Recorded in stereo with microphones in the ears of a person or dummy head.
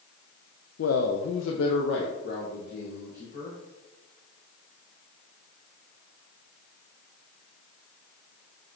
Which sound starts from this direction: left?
A man speaking, at 0.8 s.